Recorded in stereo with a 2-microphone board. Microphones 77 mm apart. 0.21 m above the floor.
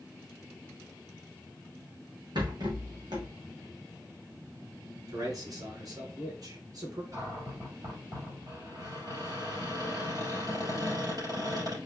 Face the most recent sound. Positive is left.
turn(degrees=-50)  # may be behind; listen again after turning